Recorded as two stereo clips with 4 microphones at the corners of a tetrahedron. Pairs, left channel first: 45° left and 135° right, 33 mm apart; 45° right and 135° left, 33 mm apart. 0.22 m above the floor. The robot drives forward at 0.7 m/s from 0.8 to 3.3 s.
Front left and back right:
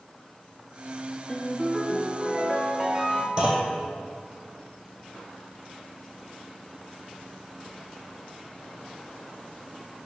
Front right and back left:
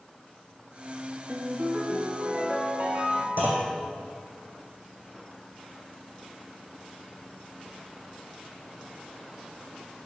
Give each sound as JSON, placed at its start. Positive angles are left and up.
{"t": 1.3, "sound": "a ringtone", "azimuth_deg": 120, "distance_m": 1.0}
{"t": 3.4, "sound": "a clunk", "azimuth_deg": 160, "distance_m": 1.8}